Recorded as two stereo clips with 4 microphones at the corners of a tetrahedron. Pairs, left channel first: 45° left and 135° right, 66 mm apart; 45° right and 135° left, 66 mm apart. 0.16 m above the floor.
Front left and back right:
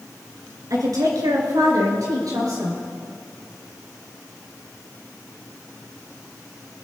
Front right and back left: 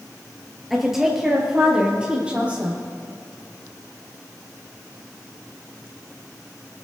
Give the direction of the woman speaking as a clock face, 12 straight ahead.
5 o'clock.